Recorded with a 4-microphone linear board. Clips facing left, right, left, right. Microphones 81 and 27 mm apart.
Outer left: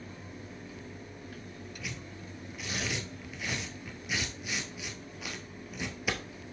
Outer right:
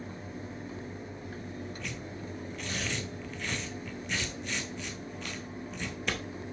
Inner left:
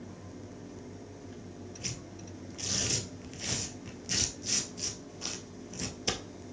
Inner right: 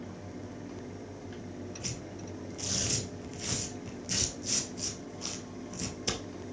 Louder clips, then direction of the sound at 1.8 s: Outer right 3 dB, inner right 2 dB; 10° left (ahead or behind).